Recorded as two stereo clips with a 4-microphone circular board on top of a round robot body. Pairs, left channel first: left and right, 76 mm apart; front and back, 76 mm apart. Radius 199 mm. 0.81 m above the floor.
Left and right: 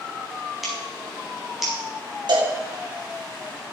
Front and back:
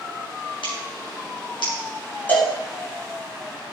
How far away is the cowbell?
About 3 m.